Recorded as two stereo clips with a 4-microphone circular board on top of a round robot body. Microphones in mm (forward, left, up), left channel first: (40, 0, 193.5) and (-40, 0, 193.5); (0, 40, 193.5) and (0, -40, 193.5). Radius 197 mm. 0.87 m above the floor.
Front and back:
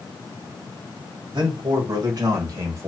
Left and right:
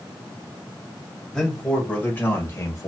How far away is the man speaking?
About 2.0 m.